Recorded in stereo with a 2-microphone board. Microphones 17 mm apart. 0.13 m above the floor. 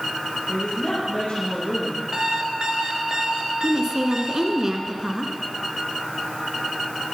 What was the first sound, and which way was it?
A woman speaking, 70° left (ahead or behind).